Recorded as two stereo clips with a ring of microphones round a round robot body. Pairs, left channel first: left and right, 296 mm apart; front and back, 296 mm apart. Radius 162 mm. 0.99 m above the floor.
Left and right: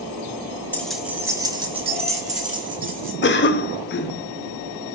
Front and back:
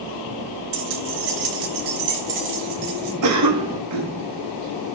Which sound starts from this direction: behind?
Keys jangling, at 0.7 s.